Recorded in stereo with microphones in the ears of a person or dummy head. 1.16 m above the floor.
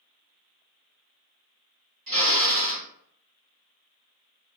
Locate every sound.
2.1 s a drill: 45° right (ahead or behind), 1.9 m